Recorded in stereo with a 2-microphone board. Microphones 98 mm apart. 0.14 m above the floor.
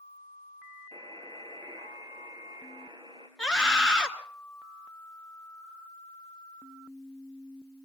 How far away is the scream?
About 2.5 m.